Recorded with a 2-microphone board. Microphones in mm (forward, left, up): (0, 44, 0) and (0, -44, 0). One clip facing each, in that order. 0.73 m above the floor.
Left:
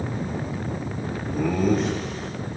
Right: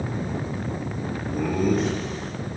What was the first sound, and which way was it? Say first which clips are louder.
Laughter: left 1 dB; 5° right (ahead or behind).